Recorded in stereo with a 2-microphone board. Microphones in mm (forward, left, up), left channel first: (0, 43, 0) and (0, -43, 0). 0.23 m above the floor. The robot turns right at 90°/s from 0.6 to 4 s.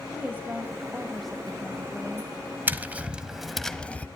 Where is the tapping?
20° right (ahead or behind), 1.0 m; by 4.1 s 15° left (ahead or behind), 1.0 m.